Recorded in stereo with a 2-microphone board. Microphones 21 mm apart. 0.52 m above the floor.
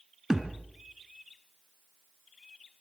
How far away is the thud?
About 2.5 m.